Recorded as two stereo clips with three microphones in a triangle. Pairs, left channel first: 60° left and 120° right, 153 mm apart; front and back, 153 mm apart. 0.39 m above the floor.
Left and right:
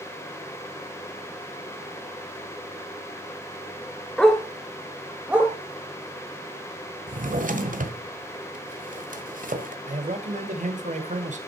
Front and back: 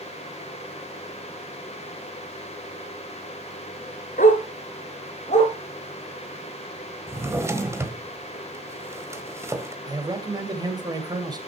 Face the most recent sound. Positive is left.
turn(degrees=-125)